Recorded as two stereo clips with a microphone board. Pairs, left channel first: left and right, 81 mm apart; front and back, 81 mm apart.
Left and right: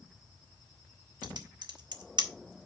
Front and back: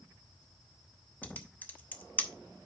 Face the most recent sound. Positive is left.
turn(degrees=-70)